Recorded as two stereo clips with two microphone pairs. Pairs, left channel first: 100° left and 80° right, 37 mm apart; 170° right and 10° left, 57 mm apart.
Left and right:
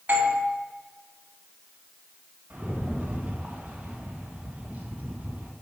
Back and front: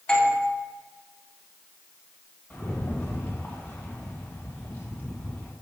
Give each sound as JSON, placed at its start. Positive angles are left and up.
{"t": 0.1, "sound": "a doorbell", "azimuth_deg": -100, "distance_m": 1.8}
{"t": 2.5, "sound": "a rattle", "azimuth_deg": -120, "distance_m": 1.9}